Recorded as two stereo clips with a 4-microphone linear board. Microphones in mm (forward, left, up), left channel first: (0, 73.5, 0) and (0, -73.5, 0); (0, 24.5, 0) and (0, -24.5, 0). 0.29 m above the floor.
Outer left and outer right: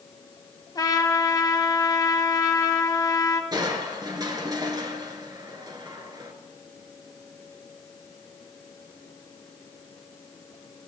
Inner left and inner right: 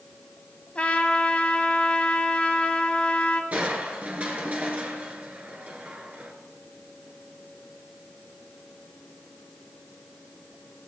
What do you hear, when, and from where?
0.8 s a trumpet: 25° left (ahead or behind), 0.8 m
3.5 s crushing: 30° right (ahead or behind), 1.1 m